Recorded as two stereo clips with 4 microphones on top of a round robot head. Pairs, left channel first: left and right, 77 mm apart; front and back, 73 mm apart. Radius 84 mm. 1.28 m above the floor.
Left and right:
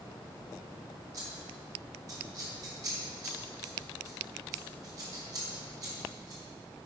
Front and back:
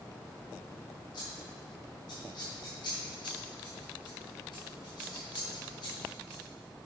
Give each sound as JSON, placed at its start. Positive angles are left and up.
{"t": 1.1, "sound": "scissors", "azimuth_deg": -50, "distance_m": 2.0}